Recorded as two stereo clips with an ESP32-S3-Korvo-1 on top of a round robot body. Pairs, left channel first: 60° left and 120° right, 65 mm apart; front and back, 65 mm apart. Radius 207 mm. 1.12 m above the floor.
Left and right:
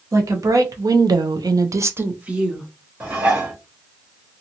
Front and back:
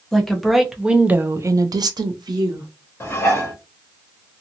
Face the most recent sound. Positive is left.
turn(degrees=-55)